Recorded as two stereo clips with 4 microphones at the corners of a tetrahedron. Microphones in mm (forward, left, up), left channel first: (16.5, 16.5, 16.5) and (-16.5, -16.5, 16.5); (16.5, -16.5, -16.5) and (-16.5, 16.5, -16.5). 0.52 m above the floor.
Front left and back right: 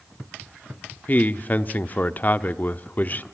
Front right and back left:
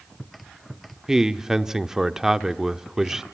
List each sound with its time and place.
1.1 s a man speaking: 65° left, 0.9 m